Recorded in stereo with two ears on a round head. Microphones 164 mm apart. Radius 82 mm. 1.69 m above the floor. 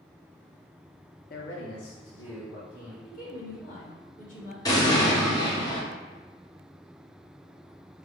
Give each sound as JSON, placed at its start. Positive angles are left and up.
{"t": 1.3, "sound": "a man speaking", "side_deg": 50, "distance_m": 0.6}
{"t": 3.0, "sound": "a woman speaking", "side_deg": 45, "distance_m": 1.9}
{"t": 4.7, "sound": "an explosion", "side_deg": 20, "distance_m": 0.9}